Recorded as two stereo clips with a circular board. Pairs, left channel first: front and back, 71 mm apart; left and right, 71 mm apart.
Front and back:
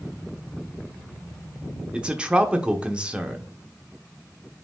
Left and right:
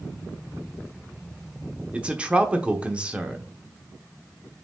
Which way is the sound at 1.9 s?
135° right.